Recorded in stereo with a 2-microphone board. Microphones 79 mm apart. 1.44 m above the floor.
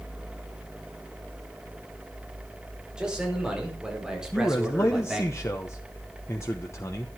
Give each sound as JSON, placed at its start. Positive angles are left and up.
{"t": 3.0, "sound": "a man speaking", "side_deg": -10, "distance_m": 5.5}
{"t": 4.3, "sound": "a man speaking", "side_deg": 35, "distance_m": 1.2}